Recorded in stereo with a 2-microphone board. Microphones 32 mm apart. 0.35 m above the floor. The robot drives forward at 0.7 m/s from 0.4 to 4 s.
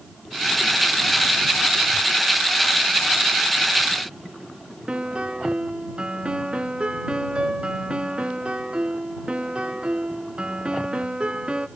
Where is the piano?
30° right (ahead or behind), 0.6 m.